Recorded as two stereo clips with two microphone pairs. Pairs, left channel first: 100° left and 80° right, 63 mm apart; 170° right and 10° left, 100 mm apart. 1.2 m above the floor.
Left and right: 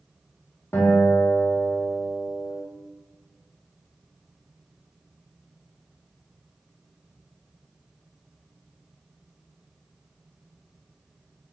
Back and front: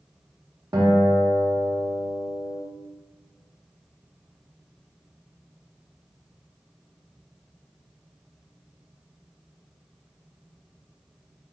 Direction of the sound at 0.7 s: 55° left.